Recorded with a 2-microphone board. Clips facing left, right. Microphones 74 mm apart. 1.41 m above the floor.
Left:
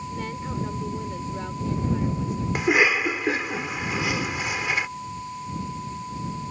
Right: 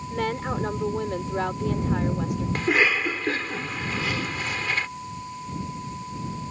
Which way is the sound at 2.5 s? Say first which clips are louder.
Left 2 dB; 10° left (ahead or behind).